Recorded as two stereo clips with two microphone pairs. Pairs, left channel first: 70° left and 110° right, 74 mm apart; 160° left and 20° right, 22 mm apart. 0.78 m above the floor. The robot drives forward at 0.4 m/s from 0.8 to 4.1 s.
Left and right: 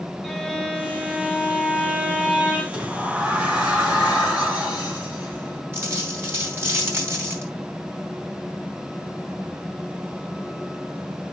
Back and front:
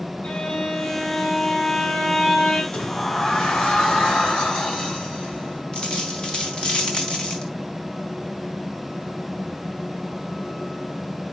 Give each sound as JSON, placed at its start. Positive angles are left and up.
{"t": 0.2, "sound": "a violin", "azimuth_deg": 155, "distance_m": 2.0}
{"t": 2.7, "sound": "a sliding door", "azimuth_deg": 175, "distance_m": 1.8}
{"t": 5.7, "sound": "a dropped coin", "azimuth_deg": -165, "distance_m": 2.5}